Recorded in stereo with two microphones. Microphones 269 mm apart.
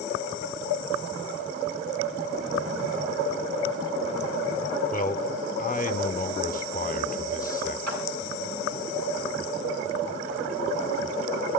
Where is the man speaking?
30° left (ahead or behind), 0.7 m.